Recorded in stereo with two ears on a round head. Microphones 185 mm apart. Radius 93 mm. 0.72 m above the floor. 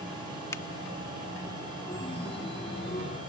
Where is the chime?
25° left (ahead or behind).